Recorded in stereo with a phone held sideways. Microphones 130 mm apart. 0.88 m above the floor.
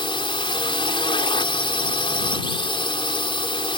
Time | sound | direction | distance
0.0 | a drone | 40° left (ahead or behind) | ?